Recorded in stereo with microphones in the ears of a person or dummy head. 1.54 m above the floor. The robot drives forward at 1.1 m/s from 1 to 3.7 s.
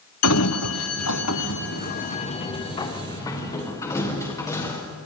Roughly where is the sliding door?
Left.